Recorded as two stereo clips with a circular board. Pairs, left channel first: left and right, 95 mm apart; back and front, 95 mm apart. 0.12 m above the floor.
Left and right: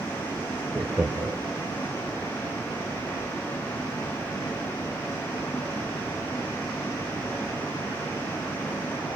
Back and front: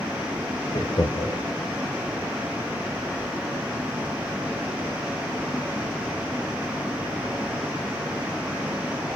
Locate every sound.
0.7 s laughter: 170° right, 2.5 m